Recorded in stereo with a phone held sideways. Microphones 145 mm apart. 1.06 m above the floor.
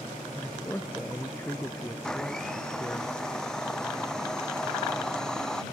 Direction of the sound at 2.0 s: 5° left (ahead or behind).